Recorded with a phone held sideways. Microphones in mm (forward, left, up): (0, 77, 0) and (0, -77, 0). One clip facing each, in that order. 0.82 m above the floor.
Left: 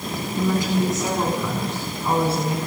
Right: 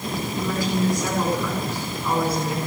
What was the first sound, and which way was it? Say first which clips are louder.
A woman speaking: left 3 dB; 20° left (ahead or behind).